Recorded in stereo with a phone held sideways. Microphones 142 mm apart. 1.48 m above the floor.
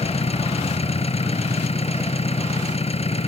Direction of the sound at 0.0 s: 45° left (ahead or behind).